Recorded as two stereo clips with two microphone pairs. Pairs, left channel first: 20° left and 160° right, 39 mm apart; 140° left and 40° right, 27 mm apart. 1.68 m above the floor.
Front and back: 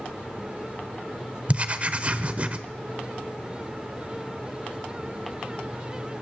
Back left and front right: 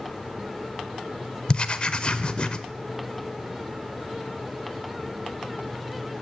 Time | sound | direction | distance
1.5 | writing | 170° left | 0.7 m